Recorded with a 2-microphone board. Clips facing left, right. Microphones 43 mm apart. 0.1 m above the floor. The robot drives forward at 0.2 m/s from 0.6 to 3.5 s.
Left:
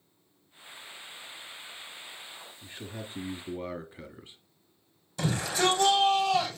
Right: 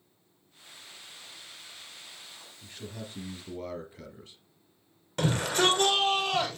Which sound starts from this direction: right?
A shout, at 5.2 s.